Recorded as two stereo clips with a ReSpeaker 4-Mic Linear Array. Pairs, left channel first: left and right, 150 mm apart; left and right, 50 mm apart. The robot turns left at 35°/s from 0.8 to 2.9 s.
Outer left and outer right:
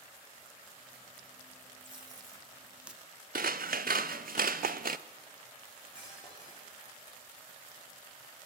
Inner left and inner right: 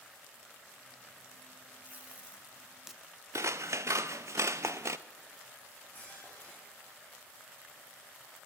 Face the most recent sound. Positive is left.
turn(degrees=35)  # may be behind; listen again after turning